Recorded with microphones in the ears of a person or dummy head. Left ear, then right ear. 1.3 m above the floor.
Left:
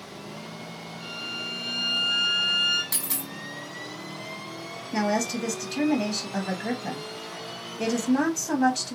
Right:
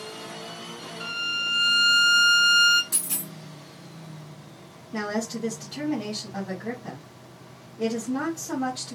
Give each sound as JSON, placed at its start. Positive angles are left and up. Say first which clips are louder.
{"t": 1.0, "sound": "a violin", "louder": "right 7 dB", "side_deg": -45, "distance_m": 0.8}
{"t": 2.9, "sound": "a dropped coin", "louder": "left 1 dB", "side_deg": 25, "distance_m": 1.6}
{"t": 4.9, "sound": "a woman speaking", "louder": "left 4 dB", "side_deg": 75, "distance_m": 1.0}